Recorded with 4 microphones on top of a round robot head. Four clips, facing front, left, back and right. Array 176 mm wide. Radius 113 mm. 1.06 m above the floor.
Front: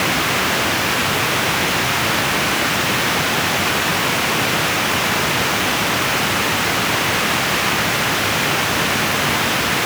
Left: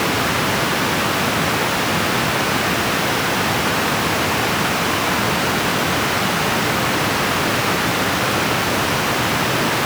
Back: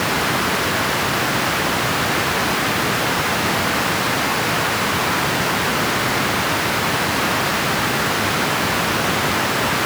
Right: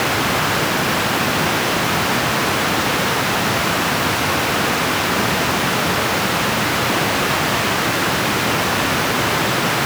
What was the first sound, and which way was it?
Only background noise.